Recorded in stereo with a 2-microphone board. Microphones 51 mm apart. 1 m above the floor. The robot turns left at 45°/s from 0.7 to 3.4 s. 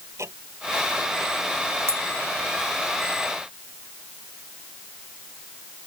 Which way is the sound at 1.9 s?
60° right (ahead or behind).